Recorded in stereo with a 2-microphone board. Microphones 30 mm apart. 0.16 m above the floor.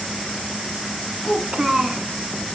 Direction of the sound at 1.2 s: 25° right (ahead or behind).